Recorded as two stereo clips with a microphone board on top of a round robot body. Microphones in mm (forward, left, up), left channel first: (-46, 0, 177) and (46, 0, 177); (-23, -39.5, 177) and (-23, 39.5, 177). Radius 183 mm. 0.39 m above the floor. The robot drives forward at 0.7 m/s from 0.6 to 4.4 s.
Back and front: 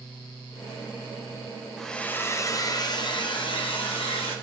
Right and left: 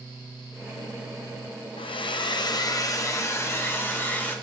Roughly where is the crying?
I don't hear crying.